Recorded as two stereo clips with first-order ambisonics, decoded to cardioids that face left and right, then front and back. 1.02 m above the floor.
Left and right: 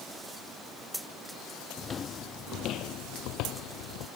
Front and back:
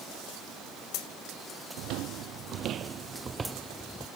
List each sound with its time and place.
1.8 s footsteps: 155° left; by 4.1 s 80° left